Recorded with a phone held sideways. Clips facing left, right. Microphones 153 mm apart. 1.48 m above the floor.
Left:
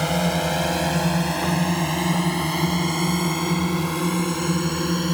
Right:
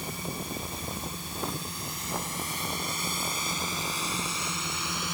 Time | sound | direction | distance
0.0 | a drone | 85° left | ?